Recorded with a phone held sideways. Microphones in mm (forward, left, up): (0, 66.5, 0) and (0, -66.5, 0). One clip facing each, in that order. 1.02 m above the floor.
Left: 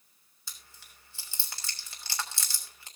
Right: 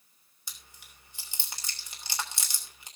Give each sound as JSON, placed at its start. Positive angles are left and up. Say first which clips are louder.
{"t": 0.5, "sound": "chewing", "louder": "even", "side_deg": -20, "distance_m": 3.0}